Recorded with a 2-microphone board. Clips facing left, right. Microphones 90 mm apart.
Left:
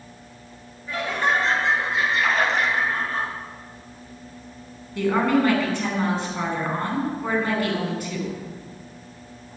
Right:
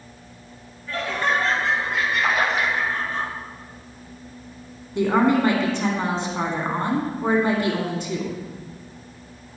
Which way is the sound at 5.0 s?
20° right (ahead or behind).